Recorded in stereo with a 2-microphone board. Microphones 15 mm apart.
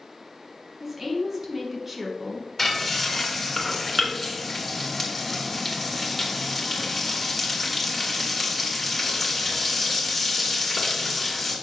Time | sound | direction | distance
0.8 | a woman speaking | 25° right (ahead or behind) | 1.7 m
2.6 | frying | 5° left (ahead or behind) | 2 m